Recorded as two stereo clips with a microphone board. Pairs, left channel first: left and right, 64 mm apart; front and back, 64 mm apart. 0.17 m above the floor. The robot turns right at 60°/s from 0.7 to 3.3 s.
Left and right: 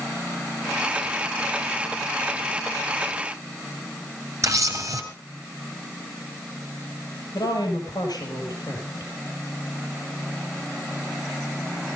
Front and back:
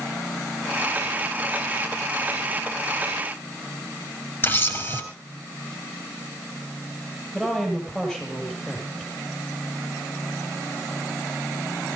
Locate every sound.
4.4 s a camera shutter: 50° right, 3 m
7.3 s a woman speaking: 80° left, 5.5 m